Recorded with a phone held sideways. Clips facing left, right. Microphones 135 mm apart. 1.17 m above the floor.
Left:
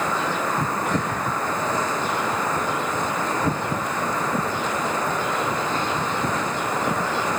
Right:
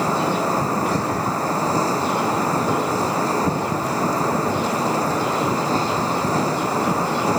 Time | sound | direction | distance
0.0 | a machine running | 35° right (ahead or behind) | ?